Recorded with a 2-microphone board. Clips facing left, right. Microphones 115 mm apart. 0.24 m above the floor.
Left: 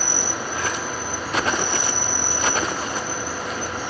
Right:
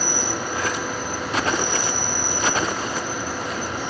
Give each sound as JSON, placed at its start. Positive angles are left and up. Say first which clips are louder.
{"t": 0.0, "sound": "an insect", "louder": "right 2 dB", "side_deg": 10, "distance_m": 5.5}